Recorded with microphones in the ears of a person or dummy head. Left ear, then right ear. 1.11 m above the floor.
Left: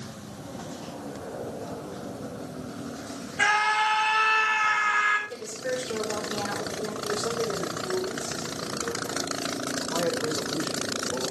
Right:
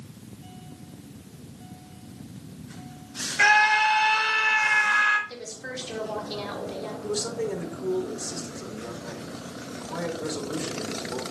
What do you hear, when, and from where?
3.4 s a scream: 50° right (ahead or behind), 4.5 m
5.3 s a woman speaking: 35° right (ahead or behind), 3.5 m
7.0 s a man speaking: 75° right (ahead or behind), 5 m